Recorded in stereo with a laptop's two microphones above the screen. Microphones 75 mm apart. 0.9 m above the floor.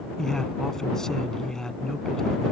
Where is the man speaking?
5° left (ahead or behind).